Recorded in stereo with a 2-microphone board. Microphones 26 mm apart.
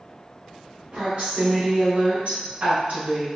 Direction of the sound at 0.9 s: 35° right (ahead or behind).